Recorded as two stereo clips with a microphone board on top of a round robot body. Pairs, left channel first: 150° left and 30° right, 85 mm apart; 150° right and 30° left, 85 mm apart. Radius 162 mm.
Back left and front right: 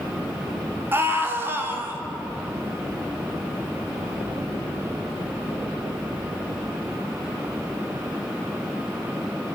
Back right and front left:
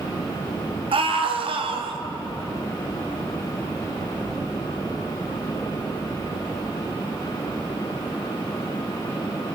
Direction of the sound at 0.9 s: 35° left.